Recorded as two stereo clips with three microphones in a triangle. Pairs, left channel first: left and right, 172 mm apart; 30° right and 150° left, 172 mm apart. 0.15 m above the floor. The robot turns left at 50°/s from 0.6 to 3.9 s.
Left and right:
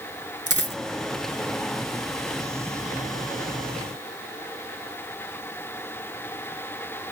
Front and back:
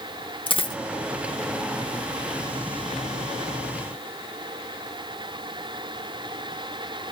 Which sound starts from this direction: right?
A dropped coin, at 0.5 s.